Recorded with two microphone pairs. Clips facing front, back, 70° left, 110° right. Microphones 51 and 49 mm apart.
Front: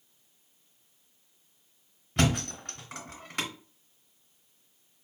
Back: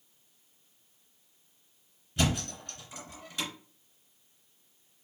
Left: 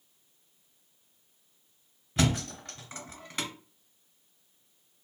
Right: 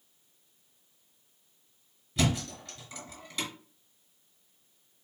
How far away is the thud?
About 1.8 m.